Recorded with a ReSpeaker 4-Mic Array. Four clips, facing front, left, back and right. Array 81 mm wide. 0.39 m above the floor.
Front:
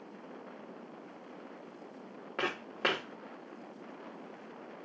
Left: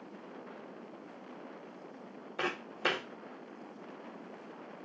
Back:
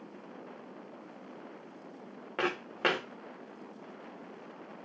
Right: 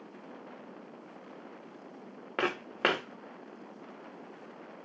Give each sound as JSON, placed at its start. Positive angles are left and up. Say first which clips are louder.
{"t": 2.4, "sound": "footsteps", "louder": "right 4 dB, back 3 dB", "azimuth_deg": -95, "distance_m": 1.5}